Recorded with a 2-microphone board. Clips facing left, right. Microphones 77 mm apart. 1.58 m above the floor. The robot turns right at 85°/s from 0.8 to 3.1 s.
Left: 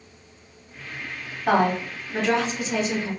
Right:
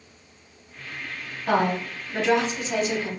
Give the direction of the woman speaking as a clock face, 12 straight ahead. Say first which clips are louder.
Left 2 dB; 8 o'clock.